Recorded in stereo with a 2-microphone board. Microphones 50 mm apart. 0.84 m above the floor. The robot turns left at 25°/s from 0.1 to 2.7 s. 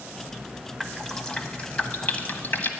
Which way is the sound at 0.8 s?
5° left (ahead or behind).